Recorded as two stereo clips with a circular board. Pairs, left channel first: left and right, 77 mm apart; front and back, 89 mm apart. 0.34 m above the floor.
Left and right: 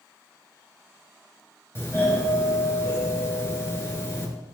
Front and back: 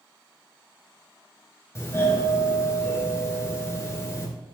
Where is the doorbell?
45° left, 2.5 m.